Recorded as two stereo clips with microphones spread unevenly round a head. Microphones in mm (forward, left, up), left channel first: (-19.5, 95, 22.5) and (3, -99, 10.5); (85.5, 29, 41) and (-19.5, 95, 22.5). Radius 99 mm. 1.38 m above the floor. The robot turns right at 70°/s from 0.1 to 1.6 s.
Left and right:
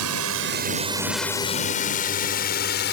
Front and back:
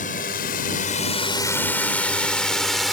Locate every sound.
0.0 s a drone: 80° right; by 2.9 s 55° left